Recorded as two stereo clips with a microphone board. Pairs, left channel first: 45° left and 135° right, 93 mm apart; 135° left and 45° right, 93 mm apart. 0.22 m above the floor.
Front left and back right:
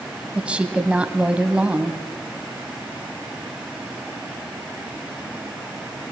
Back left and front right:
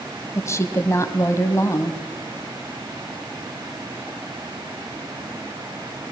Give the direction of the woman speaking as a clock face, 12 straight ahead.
7 o'clock.